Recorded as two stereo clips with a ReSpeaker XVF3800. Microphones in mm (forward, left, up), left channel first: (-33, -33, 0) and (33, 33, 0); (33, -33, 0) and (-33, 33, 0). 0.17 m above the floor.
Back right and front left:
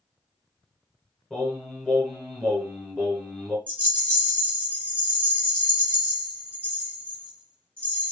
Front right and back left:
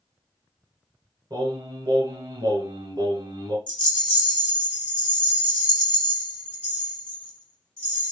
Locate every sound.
1.3 s singing: 130° left, 1.0 m
3.7 s a rattle: 15° left, 1.4 m